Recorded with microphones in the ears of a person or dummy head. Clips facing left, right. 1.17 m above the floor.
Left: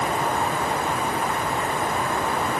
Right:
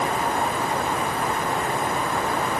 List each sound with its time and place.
Only background noise.